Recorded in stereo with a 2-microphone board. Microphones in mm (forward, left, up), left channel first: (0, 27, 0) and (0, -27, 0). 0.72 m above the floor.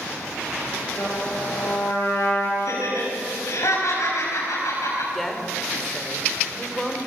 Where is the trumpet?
75° left (ahead or behind), 8.5 m.